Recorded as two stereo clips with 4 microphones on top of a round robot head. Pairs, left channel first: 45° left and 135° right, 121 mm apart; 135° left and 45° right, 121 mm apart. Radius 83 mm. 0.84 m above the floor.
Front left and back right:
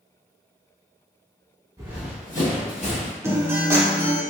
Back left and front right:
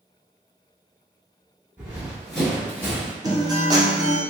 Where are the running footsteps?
105° right, 0.8 m; by 3.1 s 70° left, 1.1 m.